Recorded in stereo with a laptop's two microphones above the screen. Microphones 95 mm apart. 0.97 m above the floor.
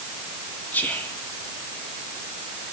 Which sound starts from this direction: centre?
Whispering, at 0.7 s.